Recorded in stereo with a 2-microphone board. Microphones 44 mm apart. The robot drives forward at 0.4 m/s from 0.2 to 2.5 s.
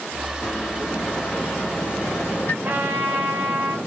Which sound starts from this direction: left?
A microwave, at 0.4 s.